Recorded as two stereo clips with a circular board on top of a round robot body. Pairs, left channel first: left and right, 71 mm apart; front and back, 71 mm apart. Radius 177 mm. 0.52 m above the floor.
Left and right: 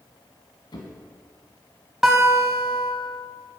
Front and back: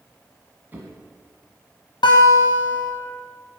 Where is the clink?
No clink in this recording.